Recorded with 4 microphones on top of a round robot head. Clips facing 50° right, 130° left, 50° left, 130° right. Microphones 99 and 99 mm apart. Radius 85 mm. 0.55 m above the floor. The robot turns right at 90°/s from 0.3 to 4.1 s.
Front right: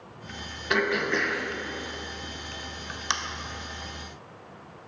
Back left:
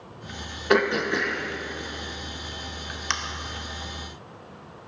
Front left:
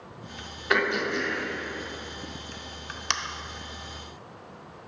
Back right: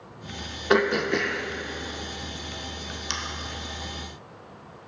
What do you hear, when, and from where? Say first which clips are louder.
0.7 s throat clearing: back left 4 dB, back right 4 dB; 170° left, 0.7 m; by 3.1 s 30° left, 0.7 m